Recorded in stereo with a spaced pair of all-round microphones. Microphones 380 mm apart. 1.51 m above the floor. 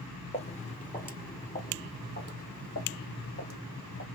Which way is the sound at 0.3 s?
15° left (ahead or behind).